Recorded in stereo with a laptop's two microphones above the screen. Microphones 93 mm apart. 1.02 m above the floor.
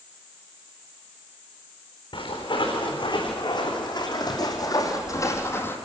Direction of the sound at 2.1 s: 65° left (ahead or behind).